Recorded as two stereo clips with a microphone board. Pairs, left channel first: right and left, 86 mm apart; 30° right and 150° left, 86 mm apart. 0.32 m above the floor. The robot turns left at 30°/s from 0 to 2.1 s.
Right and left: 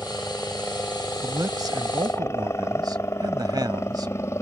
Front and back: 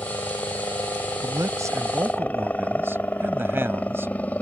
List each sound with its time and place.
0.0 s a helicopter: 25° right; by 4.4 s 85° right
1.2 s a man speaking: 120° left; by 4.1 s 95° left